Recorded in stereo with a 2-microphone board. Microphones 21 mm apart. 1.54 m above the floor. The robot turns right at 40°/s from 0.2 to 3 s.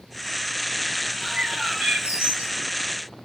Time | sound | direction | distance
1.2 | a bird | 125° right | 8 m